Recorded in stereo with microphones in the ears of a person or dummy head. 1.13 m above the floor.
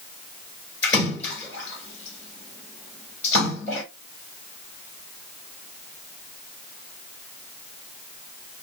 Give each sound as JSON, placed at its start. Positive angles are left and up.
{"t": 0.8, "sound": "a splash", "side_deg": 10, "distance_m": 3.0}